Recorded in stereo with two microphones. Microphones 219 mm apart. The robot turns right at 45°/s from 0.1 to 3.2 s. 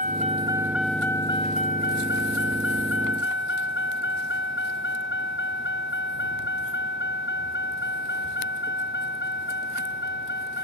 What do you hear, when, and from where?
0.0 s a vehicle: 40° right (ahead or behind); by 10.7 s 55° left (ahead or behind)